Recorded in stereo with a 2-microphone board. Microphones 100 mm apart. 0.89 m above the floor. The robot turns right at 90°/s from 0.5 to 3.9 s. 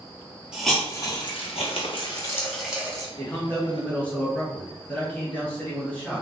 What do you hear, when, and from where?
0.5 s a hiss: 10° right, 0.7 m; by 3.1 s 140° right, 0.7 m
3.2 s a man speaking: 25° left (ahead or behind), 0.9 m; by 6.2 s 15° left (ahead or behind), 0.9 m